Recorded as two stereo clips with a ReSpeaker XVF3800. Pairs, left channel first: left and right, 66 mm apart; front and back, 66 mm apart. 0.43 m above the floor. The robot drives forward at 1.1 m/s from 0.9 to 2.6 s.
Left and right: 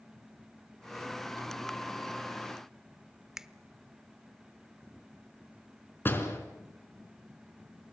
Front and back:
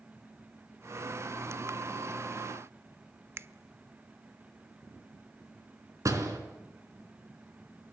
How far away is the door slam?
About 3.5 m.